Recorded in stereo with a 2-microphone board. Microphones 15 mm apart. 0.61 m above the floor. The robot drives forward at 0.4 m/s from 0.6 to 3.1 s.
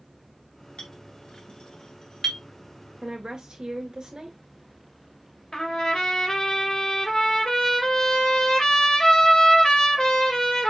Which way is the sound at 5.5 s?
60° left (ahead or behind).